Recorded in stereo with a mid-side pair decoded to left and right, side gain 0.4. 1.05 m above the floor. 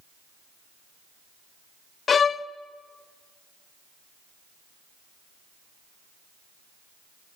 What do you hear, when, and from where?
2.1 s a violin: 50° left, 0.8 m